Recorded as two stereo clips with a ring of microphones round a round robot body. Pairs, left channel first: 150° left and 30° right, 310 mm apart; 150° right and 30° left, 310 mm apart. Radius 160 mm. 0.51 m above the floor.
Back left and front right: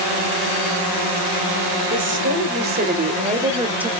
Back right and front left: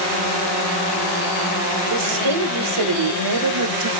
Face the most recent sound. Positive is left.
turn(degrees=60)